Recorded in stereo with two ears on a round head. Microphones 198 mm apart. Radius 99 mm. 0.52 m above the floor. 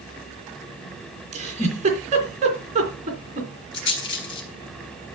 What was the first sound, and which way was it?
A giggle, 30° right (ahead or behind).